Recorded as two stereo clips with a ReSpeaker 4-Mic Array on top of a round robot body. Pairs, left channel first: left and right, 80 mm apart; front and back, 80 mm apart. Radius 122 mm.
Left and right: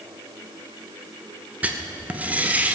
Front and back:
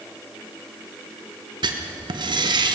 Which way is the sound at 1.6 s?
160° right.